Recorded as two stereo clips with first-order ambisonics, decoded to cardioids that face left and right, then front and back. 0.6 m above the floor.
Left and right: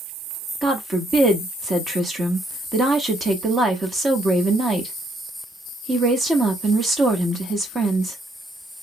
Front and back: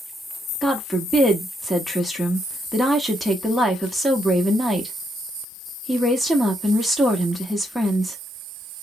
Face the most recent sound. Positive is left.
turn(degrees=-110)